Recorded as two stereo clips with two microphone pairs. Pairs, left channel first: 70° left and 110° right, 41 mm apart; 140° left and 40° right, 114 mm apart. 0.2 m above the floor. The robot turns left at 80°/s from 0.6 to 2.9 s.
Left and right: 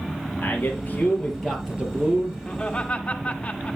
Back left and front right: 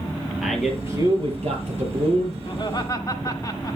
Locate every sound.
0.4 s a man speaking: 45° left, 5 m; by 2.4 s 95° right, 5 m
2.5 s laughter: 140° left, 1.7 m; by 3.8 s 105° left, 1.7 m